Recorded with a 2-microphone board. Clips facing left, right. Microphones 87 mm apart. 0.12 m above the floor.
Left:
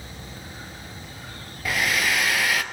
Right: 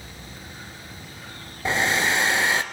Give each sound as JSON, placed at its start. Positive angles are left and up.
{"t": 1.6, "sound": "a hair dryer", "side_deg": -30, "distance_m": 1.2}